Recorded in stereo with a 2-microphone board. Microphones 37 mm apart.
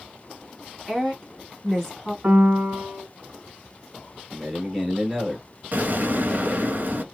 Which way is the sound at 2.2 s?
40° right (ahead or behind).